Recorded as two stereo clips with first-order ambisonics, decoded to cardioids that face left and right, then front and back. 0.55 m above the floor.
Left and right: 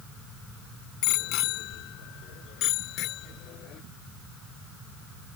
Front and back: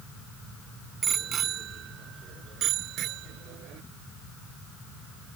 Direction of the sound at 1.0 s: 115° left.